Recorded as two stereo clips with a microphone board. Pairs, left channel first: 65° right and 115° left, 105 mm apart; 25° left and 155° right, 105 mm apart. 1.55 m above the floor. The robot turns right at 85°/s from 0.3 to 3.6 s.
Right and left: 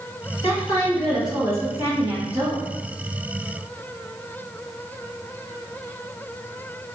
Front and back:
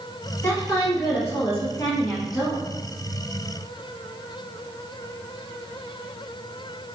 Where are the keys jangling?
No keys jangling in this recording.